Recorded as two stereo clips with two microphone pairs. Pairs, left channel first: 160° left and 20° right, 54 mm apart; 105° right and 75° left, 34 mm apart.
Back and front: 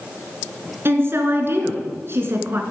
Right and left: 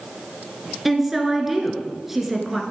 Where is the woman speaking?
5° right, 1.9 m.